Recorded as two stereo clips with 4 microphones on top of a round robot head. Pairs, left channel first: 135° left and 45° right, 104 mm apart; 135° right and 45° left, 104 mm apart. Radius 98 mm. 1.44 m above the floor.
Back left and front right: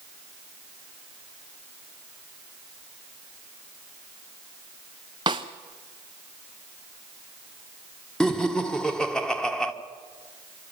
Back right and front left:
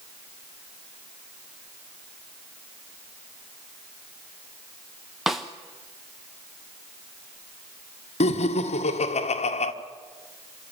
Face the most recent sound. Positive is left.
turn(degrees=-140)